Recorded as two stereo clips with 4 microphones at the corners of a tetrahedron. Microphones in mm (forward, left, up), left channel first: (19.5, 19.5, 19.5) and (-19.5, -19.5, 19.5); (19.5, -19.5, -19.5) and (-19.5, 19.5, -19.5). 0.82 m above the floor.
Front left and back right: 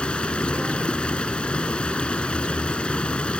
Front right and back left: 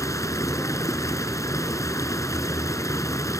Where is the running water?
25° right.